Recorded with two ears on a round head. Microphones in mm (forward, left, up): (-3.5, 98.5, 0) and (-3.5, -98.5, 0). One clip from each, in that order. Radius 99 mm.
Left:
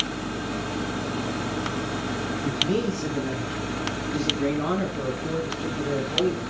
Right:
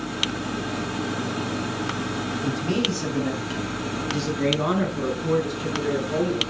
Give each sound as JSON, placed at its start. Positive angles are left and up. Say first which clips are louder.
{"t": 2.4, "sound": "a man speaking", "louder": "left 1 dB", "side_deg": -35, "distance_m": 3.0}